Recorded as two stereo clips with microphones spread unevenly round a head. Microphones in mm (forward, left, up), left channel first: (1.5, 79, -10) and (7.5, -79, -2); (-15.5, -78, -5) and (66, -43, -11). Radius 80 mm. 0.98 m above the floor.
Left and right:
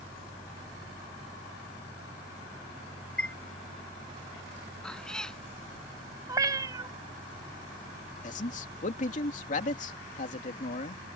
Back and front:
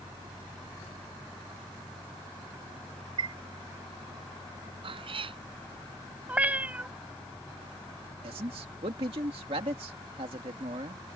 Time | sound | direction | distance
3.2 | a chime | 10° left | ?
4.8 | a cat meowing | 5° left | ?
6.3 | a cat meowing | 40° right | ?
8.2 | a man speaking | 55° left | ?